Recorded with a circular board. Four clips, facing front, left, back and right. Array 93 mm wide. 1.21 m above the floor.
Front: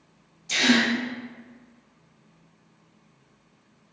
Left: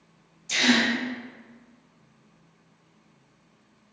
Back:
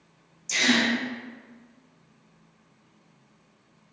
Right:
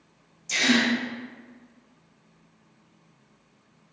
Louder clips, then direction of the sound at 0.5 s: Even, front 2 dB; 15° left.